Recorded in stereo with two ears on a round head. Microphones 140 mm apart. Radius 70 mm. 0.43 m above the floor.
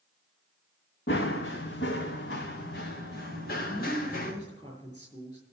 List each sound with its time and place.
1.1 s running footsteps: 75° left (ahead or behind), 2.0 m; by 4.3 s 60° left (ahead or behind), 3.5 m
3.7 s a woman speaking: 25° left (ahead or behind), 6.5 m